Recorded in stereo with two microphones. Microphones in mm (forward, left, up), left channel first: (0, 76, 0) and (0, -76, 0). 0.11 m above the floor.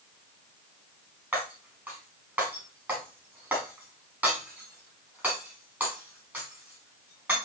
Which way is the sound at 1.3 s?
15° right (ahead or behind).